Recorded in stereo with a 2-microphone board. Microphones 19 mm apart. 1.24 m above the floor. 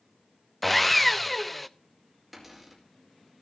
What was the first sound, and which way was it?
Sawing, 10° left (ahead or behind).